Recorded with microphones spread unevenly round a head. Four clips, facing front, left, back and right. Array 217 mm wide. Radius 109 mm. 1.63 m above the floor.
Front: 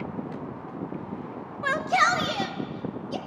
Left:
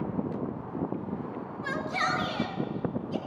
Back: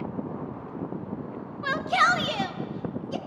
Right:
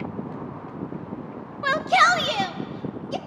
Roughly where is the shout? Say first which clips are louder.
Right 12 dB, even; right.